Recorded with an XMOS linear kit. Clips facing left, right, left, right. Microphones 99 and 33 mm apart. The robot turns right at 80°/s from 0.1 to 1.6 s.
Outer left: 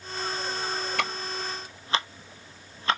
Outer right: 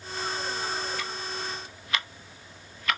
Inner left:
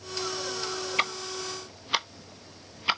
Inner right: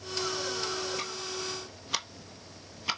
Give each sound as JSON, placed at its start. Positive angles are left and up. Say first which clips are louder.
{"t": 1.0, "sound": "ticking", "louder": "outer left 4 dB, inner left 6 dB", "side_deg": 75, "distance_m": 0.9}